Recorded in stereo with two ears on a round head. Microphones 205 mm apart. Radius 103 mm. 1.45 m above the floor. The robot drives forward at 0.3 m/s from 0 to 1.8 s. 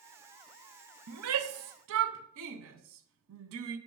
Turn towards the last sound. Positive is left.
turn(degrees=-65)  # may be behind; listen again after turning